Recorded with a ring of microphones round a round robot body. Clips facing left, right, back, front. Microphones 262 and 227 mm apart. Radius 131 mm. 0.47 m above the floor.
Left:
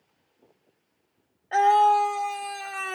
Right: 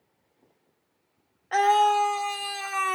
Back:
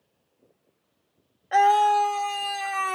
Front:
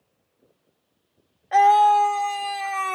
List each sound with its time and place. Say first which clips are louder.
1.5 s a scream: left 1 dB, front 3 dB; 115° right, 0.9 m